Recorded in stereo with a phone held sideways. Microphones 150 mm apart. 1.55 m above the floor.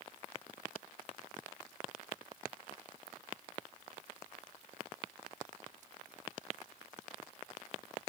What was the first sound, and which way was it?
Only background noise.